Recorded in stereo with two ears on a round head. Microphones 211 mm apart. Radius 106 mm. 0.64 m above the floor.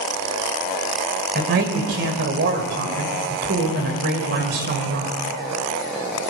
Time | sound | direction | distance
1.4 | a man speaking | 45° right (ahead or behind) | 3 m